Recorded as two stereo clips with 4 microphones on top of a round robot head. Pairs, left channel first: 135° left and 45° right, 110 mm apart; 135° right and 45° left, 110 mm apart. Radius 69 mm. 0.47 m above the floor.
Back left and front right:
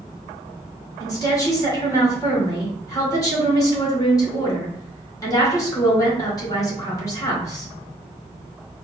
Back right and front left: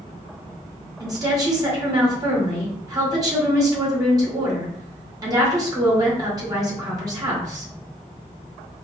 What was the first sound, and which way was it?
A woman speaking, 90° left.